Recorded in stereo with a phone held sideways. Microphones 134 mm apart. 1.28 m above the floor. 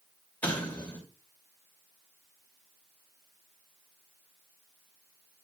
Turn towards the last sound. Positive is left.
turn(degrees=10)  # may be behind; listen again after turning